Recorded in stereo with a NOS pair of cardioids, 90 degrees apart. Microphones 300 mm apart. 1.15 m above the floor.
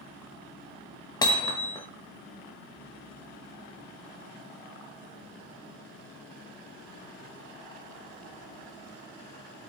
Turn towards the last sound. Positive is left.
turn(degrees=15)